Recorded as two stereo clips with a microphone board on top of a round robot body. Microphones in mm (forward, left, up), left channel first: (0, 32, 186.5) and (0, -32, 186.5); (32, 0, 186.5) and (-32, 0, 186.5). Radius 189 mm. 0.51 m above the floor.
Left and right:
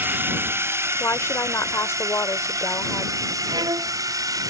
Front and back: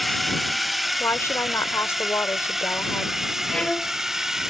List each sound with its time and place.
0.0 s a drone: 90° right; by 4.5 s 100° right
1.0 s a woman speaking: 45° left
3.5 s a violin: 75° right